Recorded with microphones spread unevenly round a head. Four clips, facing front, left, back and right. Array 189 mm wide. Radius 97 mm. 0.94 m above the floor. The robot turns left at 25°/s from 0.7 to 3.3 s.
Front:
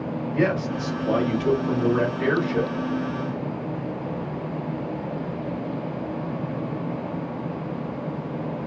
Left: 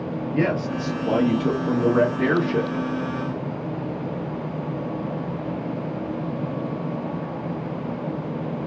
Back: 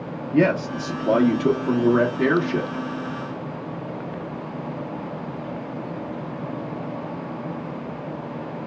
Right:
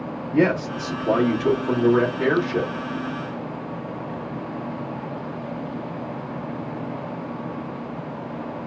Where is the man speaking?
175° right, 1.1 m; by 2.9 s 130° left, 1.1 m.